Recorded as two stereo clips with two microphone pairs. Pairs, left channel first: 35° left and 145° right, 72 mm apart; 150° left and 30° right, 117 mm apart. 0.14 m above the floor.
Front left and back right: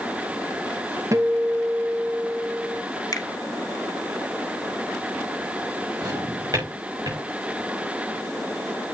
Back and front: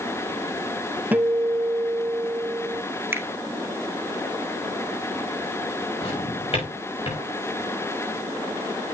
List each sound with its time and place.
1.1 s a guitar: 105° right, 1.1 m
3.1 s a finger snap: 40° left, 1.4 m
6.0 s a drawer: 170° right, 7 m